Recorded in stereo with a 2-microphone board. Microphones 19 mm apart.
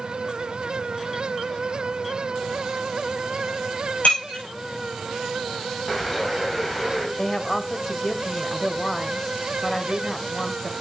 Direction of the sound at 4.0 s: 85° left.